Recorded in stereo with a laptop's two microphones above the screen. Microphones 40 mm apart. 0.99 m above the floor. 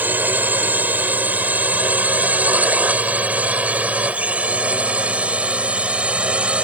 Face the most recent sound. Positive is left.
turn(degrees=-30)  # may be behind; listen again after turning